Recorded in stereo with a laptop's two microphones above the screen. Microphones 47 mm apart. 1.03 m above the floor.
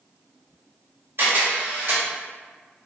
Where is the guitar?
No guitar in this recording.